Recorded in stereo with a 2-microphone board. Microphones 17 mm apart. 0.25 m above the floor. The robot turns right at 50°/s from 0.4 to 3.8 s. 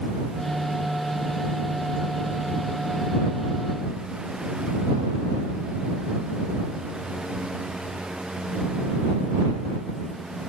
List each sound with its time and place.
Only background noise.